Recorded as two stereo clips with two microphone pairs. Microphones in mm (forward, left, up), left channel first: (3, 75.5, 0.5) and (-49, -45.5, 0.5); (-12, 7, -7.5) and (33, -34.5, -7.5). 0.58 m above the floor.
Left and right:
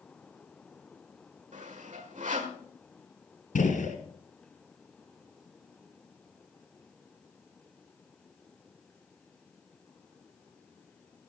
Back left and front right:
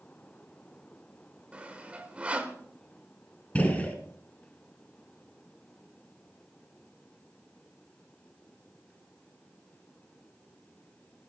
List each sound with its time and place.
1.5 s sawing: 110° right, 1.5 m
3.5 s a gunshot: 70° left, 1.9 m